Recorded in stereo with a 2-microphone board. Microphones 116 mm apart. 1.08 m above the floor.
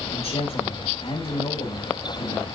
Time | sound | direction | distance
0.1 | a man speaking | 60° left (ahead or behind) | 5.5 m